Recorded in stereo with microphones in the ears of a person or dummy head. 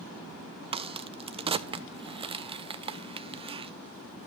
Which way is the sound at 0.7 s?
30° right (ahead or behind).